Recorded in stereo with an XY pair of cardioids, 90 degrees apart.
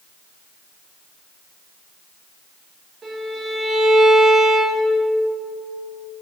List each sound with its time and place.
3.0 s a violin: 50° right, 2 m